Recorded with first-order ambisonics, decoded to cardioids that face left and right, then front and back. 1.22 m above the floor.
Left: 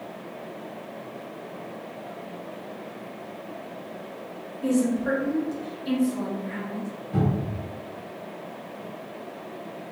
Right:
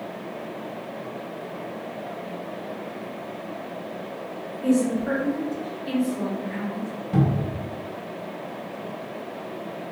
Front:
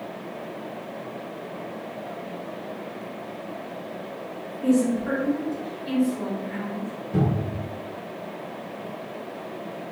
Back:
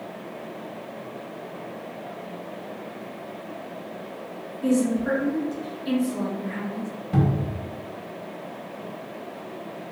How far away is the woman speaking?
About 1.8 m.